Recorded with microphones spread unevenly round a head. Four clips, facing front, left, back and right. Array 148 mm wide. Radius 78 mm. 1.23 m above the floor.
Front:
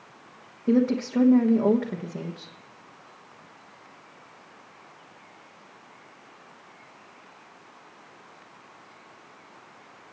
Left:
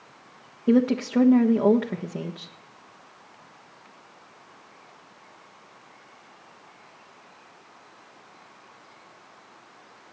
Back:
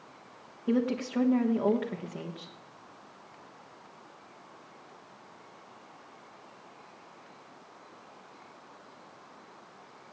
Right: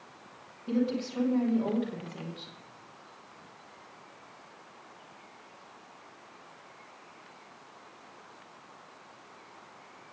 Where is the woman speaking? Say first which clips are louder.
Left 9 dB, front 6 dB; 65° left, 1.4 m.